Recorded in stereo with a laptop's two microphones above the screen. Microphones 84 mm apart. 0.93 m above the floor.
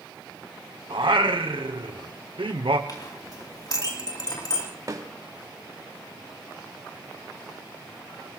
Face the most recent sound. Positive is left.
turn(degrees=-45)  # may be behind; listen again after turning